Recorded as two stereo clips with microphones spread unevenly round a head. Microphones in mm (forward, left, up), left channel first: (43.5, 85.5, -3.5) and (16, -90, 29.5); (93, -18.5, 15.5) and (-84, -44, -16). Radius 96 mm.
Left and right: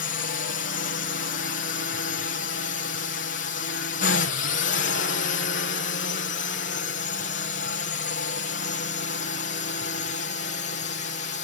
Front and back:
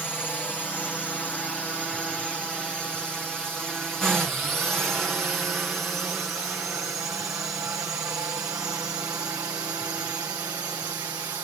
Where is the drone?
95° left; by 11.4 s 115° left.